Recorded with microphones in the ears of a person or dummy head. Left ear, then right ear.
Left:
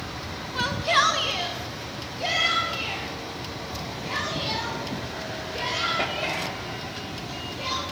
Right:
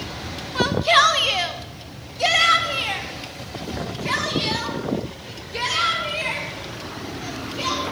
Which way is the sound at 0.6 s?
Centre (ahead or behind).